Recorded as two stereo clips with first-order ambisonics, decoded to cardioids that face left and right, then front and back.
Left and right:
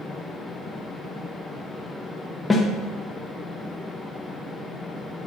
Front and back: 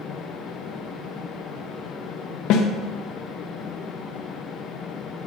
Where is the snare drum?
10° left, 0.7 m.